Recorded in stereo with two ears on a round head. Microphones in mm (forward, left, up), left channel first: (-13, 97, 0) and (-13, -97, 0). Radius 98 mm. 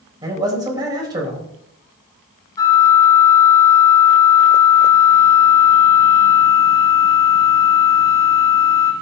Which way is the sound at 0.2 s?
20° right (ahead or behind).